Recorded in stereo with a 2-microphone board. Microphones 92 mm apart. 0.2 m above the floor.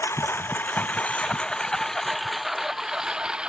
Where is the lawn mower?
30° left (ahead or behind); by 3.5 s 10° right (ahead or behind).